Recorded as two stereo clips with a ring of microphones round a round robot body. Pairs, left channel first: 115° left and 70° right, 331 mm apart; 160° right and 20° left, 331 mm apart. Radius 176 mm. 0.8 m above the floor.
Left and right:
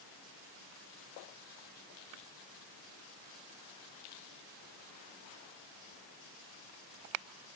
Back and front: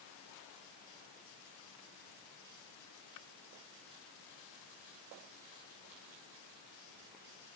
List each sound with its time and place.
Only background noise.